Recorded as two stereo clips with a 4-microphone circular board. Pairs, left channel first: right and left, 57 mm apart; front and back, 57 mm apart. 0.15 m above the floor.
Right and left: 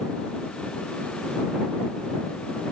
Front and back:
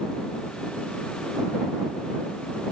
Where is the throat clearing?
I don't hear throat clearing.